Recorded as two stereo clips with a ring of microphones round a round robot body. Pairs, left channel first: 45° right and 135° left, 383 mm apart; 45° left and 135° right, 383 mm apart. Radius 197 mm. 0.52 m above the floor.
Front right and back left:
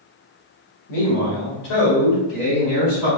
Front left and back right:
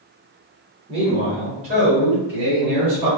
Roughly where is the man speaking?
Ahead right.